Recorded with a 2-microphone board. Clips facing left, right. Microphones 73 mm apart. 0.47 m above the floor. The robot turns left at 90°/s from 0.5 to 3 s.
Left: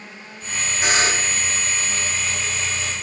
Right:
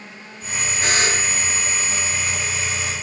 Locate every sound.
0.8 s a buzzer: 170° left, 1.3 m; by 1.4 s 120° left, 1.3 m